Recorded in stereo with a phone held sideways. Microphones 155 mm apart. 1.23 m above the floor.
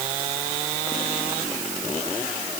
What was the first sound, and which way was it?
Only background noise.